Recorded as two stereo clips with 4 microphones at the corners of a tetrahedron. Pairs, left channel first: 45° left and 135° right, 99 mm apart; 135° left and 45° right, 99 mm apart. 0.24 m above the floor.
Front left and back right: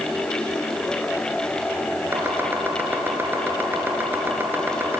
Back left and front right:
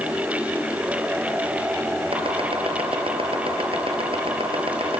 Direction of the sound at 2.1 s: 65° right.